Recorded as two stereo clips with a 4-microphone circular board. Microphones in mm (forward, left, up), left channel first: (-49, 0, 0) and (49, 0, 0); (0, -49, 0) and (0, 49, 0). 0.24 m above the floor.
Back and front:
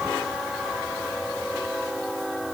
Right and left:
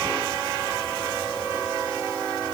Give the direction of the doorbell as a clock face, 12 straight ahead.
I don't hear a doorbell.